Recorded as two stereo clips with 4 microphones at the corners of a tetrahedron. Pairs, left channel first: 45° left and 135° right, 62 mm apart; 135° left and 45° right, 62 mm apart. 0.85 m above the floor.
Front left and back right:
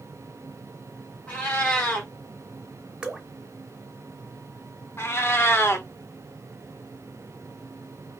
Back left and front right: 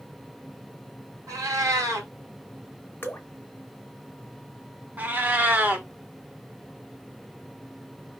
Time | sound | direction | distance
1.3 | a cat meowing | 25° right | 1.5 m
3.0 | dripping | 160° left | 0.7 m
5.0 | a cat meowing | 10° left | 0.7 m